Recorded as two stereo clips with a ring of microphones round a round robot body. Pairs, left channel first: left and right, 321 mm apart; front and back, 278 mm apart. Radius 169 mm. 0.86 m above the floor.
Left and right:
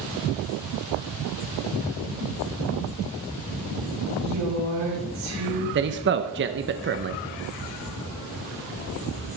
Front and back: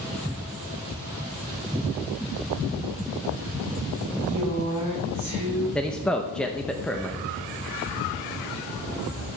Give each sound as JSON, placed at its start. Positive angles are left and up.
{"t": 4.2, "sound": "a woman speaking", "azimuth_deg": -95, "distance_m": 5.0}
{"t": 5.8, "sound": "a man speaking", "azimuth_deg": -85, "distance_m": 0.7}